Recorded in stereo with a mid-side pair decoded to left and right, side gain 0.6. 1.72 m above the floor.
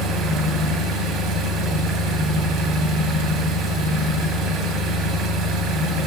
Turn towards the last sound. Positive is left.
turn(degrees=-65)